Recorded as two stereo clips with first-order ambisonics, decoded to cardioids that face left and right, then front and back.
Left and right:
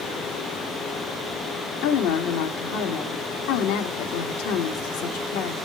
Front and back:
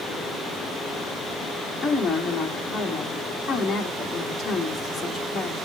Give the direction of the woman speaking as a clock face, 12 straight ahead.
9 o'clock.